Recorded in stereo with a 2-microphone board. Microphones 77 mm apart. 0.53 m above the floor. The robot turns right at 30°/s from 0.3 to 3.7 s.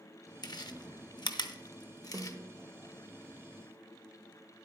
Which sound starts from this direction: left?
Chewing, at 0.4 s.